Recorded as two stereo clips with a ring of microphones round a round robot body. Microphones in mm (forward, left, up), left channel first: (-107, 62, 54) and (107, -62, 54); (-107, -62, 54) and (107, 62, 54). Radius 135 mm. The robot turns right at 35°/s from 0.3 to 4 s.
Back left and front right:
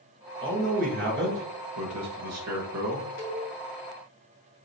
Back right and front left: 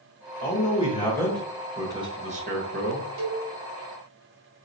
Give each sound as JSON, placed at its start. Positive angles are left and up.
{"t": 0.4, "sound": "a man speaking", "azimuth_deg": -100, "distance_m": 1.8}
{"t": 3.2, "sound": "a cowbell", "azimuth_deg": 10, "distance_m": 1.9}